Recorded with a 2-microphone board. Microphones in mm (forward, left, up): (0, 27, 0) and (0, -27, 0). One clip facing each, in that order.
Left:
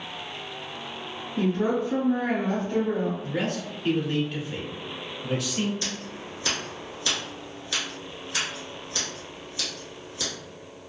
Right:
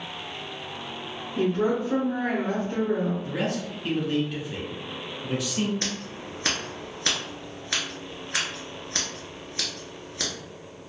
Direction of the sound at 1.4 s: 20° right (ahead or behind).